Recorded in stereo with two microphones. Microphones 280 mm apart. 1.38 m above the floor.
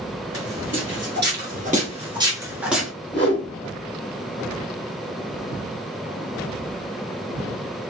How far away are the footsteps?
About 2.0 m.